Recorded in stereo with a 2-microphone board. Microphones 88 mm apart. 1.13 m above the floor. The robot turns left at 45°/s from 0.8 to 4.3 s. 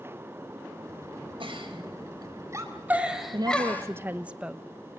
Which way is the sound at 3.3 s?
125° right.